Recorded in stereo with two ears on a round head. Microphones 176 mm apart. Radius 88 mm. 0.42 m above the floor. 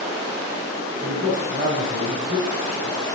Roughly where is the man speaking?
Right.